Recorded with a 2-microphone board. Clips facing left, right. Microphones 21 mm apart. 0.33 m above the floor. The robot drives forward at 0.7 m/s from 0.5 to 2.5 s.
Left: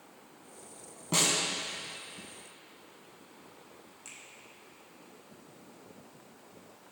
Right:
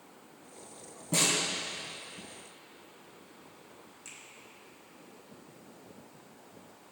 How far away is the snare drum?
About 1.7 m.